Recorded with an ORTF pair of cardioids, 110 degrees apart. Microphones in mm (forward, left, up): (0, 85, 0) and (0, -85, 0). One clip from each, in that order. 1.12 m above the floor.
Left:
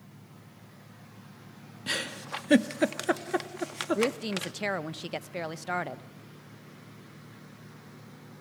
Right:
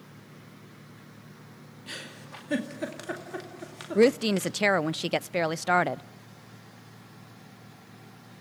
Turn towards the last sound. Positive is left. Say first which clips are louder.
# right 11 dB
turn(degrees=-35)